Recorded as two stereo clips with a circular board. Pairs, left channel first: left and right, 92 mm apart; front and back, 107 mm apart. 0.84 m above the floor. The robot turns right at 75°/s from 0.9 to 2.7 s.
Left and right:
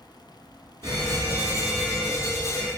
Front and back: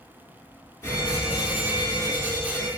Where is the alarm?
60° right, 1.3 m; by 2.7 s 75° left, 1.3 m.